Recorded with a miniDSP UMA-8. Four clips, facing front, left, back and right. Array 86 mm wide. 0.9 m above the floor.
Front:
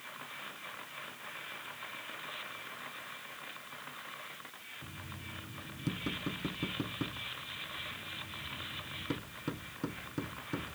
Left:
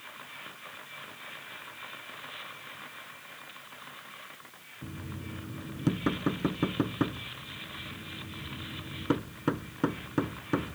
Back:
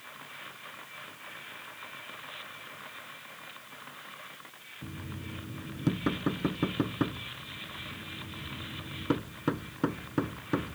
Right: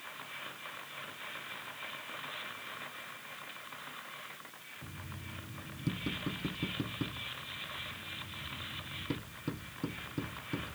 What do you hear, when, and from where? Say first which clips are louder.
4.8 s knocking: left 8 dB, back 8 dB; 125° left